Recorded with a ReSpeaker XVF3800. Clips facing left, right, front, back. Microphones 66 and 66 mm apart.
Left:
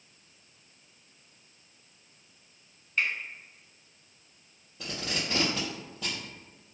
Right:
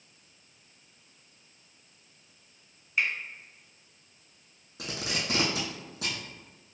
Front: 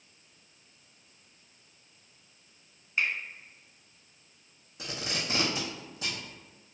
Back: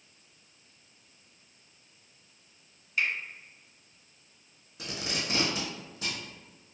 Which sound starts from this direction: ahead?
A finger snap, at 3.0 s.